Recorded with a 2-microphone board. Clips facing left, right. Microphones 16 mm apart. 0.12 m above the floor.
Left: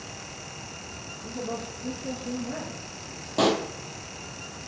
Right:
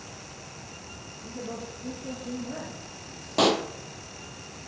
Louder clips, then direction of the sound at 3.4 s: Right 1 dB; 15° right (ahead or behind).